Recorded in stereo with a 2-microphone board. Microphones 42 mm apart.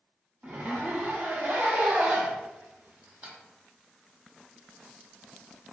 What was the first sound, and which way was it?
A zipper, 40° right (ahead or behind).